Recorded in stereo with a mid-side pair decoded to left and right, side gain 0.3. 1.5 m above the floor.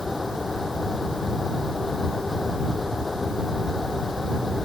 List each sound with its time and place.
0.0 s a fan: 30° left